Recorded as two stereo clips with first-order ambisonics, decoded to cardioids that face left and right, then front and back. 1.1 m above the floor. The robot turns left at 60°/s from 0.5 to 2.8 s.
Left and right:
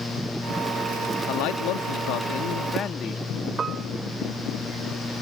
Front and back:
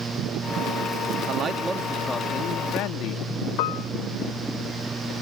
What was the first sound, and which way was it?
A man speaking, 125° left.